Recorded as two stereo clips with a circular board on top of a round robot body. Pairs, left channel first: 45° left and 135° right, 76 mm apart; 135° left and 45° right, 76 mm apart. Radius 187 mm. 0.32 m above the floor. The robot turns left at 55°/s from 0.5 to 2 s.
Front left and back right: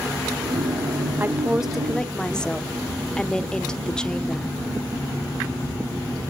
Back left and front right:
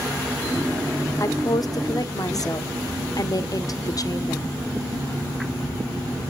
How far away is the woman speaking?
About 1.3 m.